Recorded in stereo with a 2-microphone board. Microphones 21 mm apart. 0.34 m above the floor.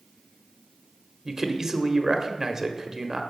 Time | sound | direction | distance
1.2 | a man speaking | 20° right (ahead or behind) | 0.9 m